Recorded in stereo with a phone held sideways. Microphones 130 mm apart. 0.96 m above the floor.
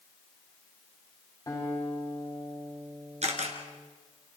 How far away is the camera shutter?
About 2.5 m.